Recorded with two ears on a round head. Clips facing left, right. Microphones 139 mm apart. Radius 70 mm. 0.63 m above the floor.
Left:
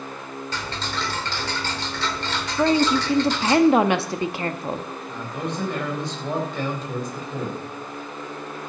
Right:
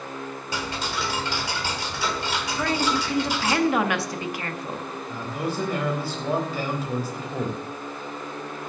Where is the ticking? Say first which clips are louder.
Right 2 dB; 10° right (ahead or behind), 1.4 m.